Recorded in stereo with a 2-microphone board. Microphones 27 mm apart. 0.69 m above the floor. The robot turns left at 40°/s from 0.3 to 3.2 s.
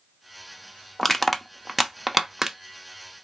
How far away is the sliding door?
I don't hear a sliding door.